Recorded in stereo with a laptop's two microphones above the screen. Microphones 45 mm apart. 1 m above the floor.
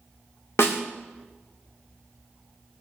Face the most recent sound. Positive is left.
turn(degrees=70)  # may be behind; listen again after turning